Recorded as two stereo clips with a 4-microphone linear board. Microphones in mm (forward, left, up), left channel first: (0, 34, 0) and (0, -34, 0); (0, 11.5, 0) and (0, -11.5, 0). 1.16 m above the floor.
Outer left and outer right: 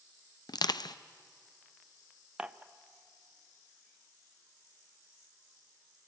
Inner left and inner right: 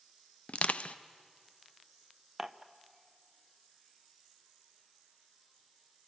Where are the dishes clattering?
15° right (ahead or behind), 0.6 m.